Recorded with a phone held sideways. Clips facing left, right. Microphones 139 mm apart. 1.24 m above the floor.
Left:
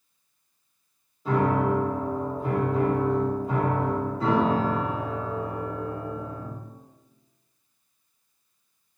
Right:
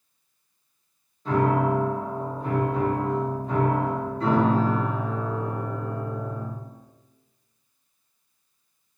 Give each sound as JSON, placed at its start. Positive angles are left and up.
{"t": 1.2, "sound": "a piano", "side_deg": 10, "distance_m": 1.0}